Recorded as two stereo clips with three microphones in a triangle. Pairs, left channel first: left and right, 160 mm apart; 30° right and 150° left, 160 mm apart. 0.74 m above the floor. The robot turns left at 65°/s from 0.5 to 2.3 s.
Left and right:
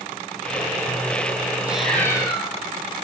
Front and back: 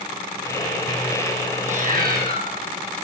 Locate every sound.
1.7 s a cat meowing: 170° right, 4.5 m; by 2.5 s 150° left, 4.5 m